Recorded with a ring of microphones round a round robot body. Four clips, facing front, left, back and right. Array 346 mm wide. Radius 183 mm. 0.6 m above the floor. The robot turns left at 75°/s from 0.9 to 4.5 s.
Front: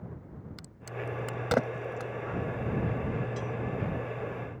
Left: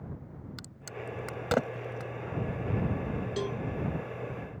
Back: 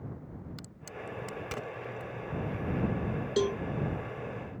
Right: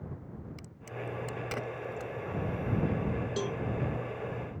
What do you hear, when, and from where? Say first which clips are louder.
0.6 s a crack: right 1 dB, front 4 dB; 90° left; by 2.1 s straight ahead
3.4 s a cowbell: left 3 dB, back 7 dB; straight behind; by 3.6 s 160° left